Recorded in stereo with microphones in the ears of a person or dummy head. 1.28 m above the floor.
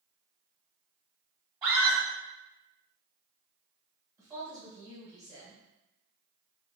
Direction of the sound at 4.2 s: 15° right (ahead or behind).